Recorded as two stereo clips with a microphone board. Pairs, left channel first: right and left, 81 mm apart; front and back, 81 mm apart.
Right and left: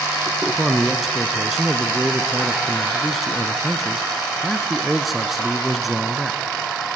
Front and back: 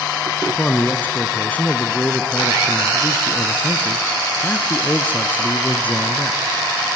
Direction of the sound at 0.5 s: 5° left.